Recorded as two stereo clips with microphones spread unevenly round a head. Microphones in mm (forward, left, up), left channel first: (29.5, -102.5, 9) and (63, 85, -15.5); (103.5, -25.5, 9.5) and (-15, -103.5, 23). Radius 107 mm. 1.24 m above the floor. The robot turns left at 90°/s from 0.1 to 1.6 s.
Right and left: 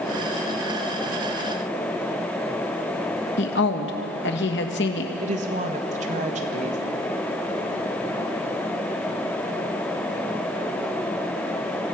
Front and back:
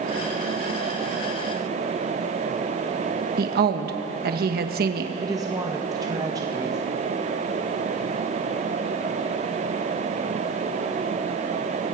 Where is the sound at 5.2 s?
140° left, 1.5 m.